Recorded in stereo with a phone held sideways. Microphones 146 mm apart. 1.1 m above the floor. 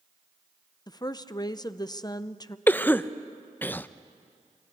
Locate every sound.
0.9 s a woman speaking: 25° left (ahead or behind), 0.6 m
2.7 s a cough: 15° left (ahead or behind), 0.6 m